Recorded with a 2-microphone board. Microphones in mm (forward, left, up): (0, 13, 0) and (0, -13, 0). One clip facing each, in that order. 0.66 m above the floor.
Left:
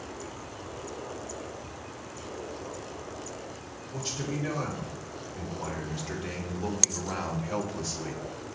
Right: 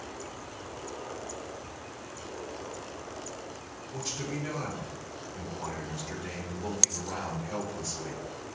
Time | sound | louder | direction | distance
3.9 | a man speaking | left 2 dB | 40° left (ahead or behind) | 3.5 m